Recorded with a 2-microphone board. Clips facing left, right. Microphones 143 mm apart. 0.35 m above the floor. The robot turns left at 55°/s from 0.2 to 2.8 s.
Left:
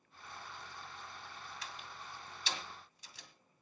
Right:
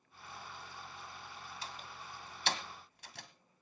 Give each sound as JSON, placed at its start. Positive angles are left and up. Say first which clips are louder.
{"t": 1.6, "sound": "a door slam", "louder": "right 1 dB", "side_deg": -30, "distance_m": 2.0}